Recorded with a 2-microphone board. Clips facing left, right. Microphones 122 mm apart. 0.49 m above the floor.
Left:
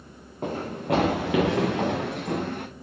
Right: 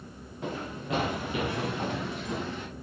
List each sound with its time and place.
0.4 s running footsteps: 45° left (ahead or behind), 2.5 m; by 2.7 s 55° left (ahead or behind), 3 m